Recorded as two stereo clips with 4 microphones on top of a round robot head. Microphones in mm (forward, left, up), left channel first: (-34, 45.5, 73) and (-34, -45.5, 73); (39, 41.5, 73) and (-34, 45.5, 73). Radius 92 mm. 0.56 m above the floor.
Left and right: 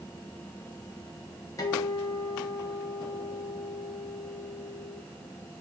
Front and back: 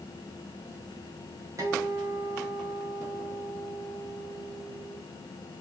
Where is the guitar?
135° left, 1.8 m.